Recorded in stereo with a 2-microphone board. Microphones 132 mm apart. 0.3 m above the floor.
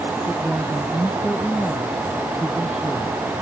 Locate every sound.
0.3 s a woman speaking: centre (ahead or behind)